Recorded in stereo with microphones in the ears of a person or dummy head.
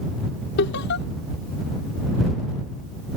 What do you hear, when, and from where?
0.6 s laughter: 70° left (ahead or behind)